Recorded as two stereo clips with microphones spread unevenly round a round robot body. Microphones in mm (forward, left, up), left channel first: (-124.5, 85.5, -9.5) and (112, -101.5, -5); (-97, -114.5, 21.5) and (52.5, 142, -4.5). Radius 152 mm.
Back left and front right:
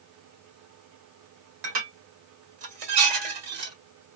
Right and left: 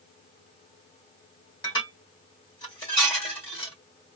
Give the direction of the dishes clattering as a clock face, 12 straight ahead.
1 o'clock.